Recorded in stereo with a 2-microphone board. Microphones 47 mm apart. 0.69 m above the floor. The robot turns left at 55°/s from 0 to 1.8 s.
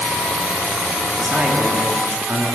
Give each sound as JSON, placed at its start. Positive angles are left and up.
{"t": 1.2, "sound": "a man speaking", "azimuth_deg": -25, "distance_m": 1.5}